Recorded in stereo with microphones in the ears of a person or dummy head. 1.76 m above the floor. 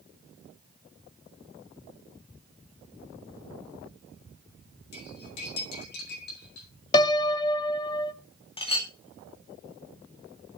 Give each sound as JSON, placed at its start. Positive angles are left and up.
{"t": 4.9, "sound": "cutlery clinking", "side_deg": 60, "distance_m": 8.5}
{"t": 6.9, "sound": "a piano", "side_deg": 25, "distance_m": 1.0}
{"t": 8.6, "sound": "a clink", "side_deg": 30, "distance_m": 2.0}